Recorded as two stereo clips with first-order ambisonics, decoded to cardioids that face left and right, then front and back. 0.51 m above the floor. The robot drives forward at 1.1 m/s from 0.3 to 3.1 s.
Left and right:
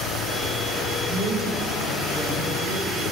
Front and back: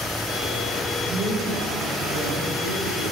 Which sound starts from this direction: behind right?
A woman speaking, at 1.1 s.